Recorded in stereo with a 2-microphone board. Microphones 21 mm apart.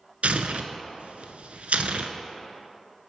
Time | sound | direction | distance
0.2 | tearing paper | 80° right | 0.5 m